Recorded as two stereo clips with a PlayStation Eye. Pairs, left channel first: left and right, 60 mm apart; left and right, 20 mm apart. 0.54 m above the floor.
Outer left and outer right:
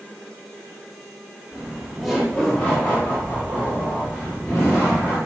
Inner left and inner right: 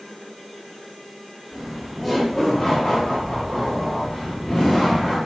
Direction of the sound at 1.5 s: 25° right (ahead or behind).